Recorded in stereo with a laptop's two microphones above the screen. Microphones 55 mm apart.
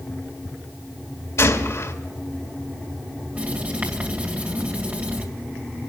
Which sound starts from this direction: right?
Writing, at 3.4 s.